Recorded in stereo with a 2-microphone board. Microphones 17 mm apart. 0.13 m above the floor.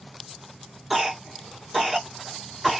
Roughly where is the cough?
Centre.